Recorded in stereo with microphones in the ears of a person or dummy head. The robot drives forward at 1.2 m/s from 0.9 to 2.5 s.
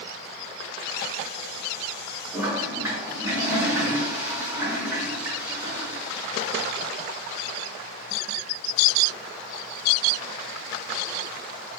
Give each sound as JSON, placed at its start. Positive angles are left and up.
{"t": 2.3, "sound": "a toilet flushing", "side_deg": -15, "distance_m": 4.0}